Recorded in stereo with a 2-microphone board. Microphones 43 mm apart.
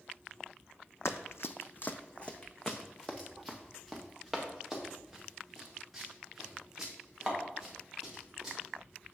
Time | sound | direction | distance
1.1 | running footsteps | 80° left | 0.6 m